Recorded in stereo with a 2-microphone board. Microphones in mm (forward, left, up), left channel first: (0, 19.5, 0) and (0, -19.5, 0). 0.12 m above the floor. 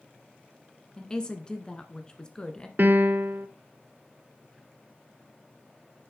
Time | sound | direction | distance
1.0 | a woman speaking | 20° left (ahead or behind) | 1.2 m
2.8 | a piano | 55° right (ahead or behind) | 0.6 m